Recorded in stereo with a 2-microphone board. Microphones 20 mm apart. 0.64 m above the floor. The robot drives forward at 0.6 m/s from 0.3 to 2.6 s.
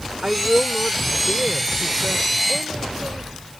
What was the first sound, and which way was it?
A woman speaking, 65° right (ahead or behind).